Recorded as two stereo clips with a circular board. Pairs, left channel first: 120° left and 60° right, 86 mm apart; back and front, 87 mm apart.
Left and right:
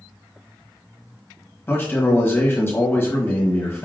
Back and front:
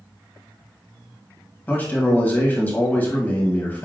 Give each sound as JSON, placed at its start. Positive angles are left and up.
{"t": 1.7, "sound": "a man speaking", "azimuth_deg": 140, "distance_m": 1.2}